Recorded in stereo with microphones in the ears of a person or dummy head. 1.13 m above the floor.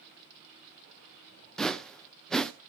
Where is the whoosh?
5° left (ahead or behind), 0.8 m.